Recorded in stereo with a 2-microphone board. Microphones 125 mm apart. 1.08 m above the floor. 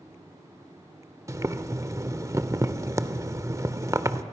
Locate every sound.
1.3 s boiling: 25° right (ahead or behind), 0.8 m